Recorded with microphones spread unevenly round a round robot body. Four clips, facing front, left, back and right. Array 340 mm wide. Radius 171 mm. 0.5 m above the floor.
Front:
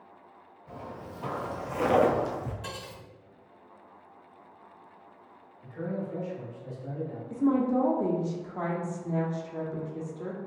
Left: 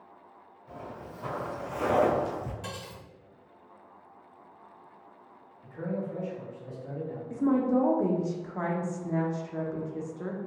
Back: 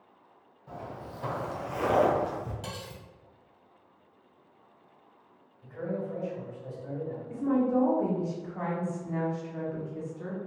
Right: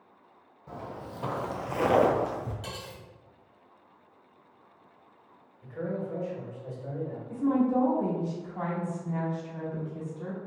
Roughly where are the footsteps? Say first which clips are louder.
Right 2 dB, back 1 dB; right.